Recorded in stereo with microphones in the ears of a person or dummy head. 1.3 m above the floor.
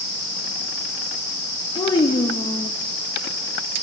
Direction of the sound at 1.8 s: 20° left (ahead or behind).